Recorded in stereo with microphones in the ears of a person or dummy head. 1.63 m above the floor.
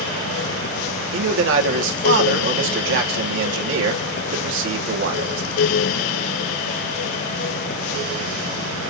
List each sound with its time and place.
1.1 s a man speaking: 85° right, 1.8 m